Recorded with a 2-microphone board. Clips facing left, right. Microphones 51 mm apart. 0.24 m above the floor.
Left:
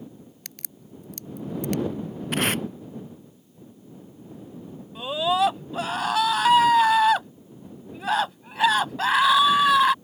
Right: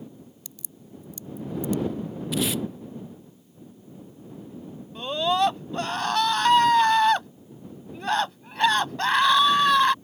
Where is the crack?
65° left (ahead or behind).